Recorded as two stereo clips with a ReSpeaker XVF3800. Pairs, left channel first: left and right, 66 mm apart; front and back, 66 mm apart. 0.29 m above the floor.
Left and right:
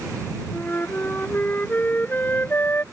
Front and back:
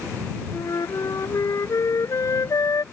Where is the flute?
30° left.